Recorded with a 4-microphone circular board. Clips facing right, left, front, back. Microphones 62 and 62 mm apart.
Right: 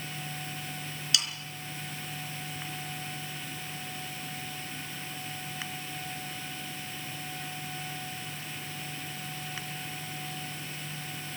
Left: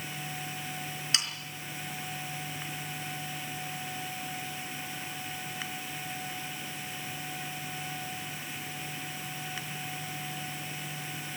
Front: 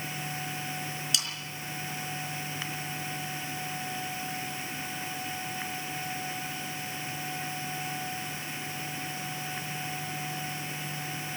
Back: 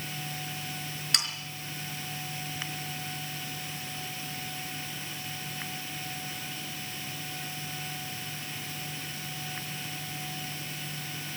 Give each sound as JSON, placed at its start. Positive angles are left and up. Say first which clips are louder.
{"t": 1.1, "sound": "sawing", "louder": "right 2 dB, back 4 dB", "azimuth_deg": 145, "distance_m": 4.0}